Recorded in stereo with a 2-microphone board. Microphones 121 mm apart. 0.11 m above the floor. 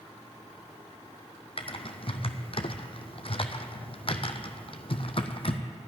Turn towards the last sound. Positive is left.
turn(degrees=50)  # may be behind; listen again after turning